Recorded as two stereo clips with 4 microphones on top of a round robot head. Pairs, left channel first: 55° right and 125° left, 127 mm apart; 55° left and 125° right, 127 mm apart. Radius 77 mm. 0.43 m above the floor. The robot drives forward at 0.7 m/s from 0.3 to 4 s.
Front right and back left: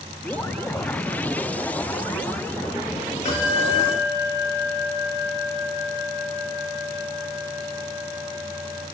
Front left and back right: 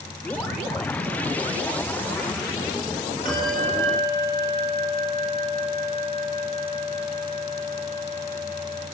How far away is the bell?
About 6 m.